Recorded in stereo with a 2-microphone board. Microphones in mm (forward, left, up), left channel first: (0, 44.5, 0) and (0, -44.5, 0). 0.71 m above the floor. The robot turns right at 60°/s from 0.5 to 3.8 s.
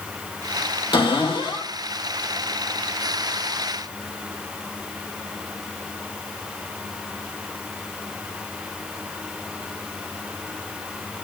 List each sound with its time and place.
0.9 s a cupboard door: 70° left, 3 m; by 1.7 s 115° left, 3 m